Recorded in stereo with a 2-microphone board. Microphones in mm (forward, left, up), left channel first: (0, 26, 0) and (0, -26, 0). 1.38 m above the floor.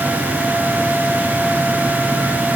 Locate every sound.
Only background noise.